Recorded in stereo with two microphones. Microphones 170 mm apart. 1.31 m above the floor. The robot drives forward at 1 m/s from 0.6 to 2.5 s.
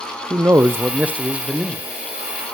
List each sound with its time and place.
0.3 s a man speaking: 15° right (ahead or behind), 0.5 m; by 1.9 s 5° right (ahead or behind), 1.6 m